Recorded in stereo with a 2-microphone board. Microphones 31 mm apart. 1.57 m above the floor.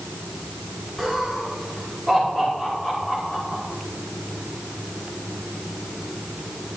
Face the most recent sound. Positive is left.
turn(degrees=35)  # may be behind; listen again after turning